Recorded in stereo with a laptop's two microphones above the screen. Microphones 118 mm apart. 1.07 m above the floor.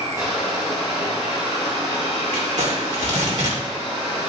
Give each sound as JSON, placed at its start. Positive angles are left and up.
{"t": 0.0, "sound": "a machine running", "side_deg": -30, "distance_m": 4.5}
{"t": 2.3, "sound": "crumpling", "side_deg": -80, "distance_m": 2.5}